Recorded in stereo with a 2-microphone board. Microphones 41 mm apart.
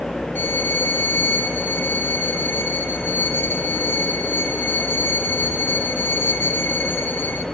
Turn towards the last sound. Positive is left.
turn(degrees=70)  # may be behind; listen again after turning